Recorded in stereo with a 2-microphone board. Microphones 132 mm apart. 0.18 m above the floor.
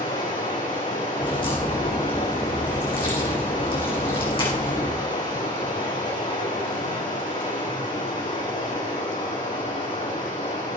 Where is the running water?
80° left, 6 m.